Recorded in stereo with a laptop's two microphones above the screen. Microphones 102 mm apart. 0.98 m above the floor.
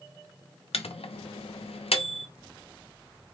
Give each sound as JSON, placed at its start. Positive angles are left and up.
{"t": 0.7, "sound": "a microwave", "side_deg": 85, "distance_m": 0.6}